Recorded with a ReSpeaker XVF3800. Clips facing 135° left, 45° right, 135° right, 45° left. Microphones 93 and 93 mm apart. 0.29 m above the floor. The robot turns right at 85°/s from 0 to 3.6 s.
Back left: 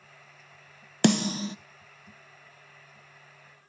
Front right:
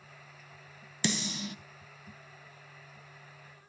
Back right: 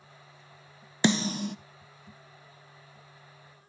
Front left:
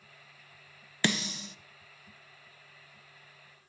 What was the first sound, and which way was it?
A snare drum, 155° left.